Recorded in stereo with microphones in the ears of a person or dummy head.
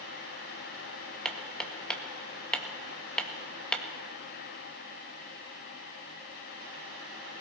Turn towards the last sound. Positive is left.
turn(degrees=5)  # may be behind; listen again after turning